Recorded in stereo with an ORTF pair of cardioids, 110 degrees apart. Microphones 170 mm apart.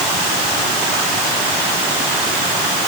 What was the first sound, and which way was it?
Only background noise.